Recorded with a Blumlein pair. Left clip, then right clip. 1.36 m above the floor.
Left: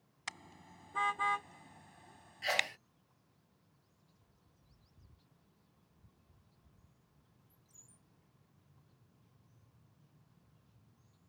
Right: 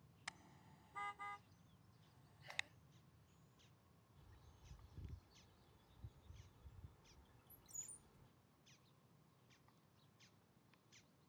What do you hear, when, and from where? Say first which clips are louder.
0.3 s a car horn: left 9 dB; 65° left; by 2.7 s 30° left
2.4 s a sneeze: left 16 dB; 40° left
4.2 s a bird: right 2 dB; 65° right